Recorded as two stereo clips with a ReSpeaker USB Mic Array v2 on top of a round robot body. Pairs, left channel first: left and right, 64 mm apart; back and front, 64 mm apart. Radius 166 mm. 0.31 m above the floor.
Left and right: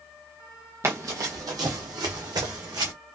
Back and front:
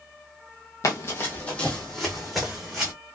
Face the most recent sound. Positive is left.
turn(degrees=-80)